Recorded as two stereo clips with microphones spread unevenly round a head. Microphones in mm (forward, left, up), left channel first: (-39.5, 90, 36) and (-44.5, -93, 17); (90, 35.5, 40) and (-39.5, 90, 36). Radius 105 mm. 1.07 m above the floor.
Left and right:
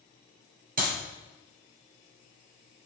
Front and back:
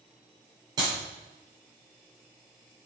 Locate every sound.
0.8 s a clap: 130° right, 3 m